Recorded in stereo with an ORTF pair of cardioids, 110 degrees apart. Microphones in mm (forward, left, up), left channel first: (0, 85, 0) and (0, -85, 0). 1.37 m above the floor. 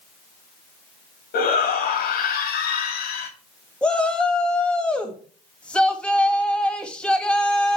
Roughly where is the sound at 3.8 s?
Ahead.